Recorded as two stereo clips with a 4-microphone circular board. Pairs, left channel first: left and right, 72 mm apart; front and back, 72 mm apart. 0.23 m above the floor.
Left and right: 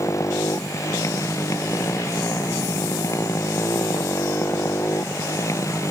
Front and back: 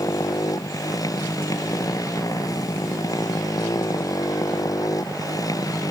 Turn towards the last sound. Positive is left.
turn(degrees=40)